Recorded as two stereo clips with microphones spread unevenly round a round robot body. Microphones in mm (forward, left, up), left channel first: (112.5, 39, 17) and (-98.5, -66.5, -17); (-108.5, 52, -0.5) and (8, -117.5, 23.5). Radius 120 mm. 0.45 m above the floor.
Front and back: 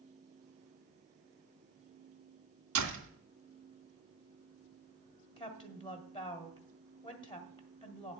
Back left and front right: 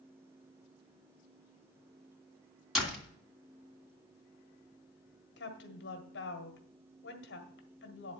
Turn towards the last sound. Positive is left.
turn(degrees=100)